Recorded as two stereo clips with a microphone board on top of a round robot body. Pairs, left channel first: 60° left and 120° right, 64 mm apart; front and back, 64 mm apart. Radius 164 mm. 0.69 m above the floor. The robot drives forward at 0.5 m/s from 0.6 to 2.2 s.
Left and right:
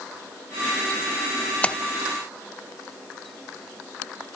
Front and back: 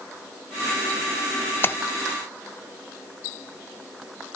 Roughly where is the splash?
Ahead.